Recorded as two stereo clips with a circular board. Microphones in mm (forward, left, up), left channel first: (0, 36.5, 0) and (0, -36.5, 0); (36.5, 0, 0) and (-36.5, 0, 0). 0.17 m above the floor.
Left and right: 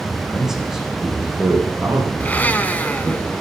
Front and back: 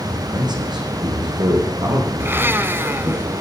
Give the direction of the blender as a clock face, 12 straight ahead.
7 o'clock.